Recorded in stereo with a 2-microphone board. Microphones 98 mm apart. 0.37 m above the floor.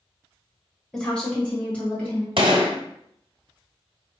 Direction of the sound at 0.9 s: 5° left (ahead or behind).